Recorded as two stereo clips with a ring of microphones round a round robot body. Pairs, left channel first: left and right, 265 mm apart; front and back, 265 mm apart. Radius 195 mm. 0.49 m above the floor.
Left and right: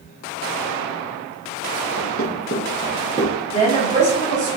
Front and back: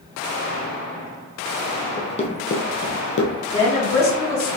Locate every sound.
2.0 s running footsteps: 70° left, 1.0 m; by 3.3 s 10° right, 0.6 m
3.5 s a woman speaking: 30° left, 1.3 m